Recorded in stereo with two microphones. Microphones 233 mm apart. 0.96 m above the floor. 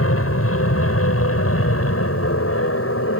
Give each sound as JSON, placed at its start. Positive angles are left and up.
{"t": 0.0, "sound": "an aircraft", "side_deg": 70}